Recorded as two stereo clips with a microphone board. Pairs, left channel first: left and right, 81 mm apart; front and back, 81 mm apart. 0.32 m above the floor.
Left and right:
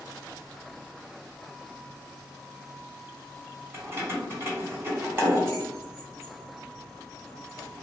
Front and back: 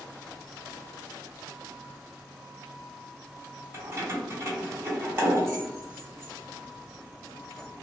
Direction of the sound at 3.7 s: 135° right.